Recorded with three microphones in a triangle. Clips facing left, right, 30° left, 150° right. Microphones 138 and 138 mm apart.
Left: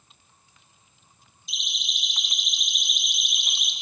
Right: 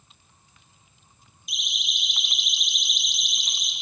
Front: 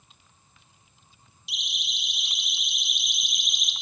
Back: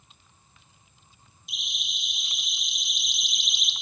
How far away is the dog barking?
I don't hear a dog barking.